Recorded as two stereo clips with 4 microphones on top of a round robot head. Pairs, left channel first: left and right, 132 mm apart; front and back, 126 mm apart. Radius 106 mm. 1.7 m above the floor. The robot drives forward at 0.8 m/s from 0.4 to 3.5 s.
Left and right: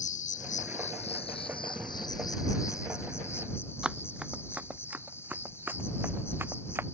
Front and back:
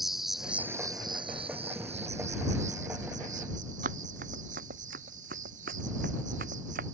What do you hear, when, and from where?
0.0 s an insect: 90° left; by 7.0 s 160° left
3.8 s running footsteps: 175° right; by 6.8 s 160° right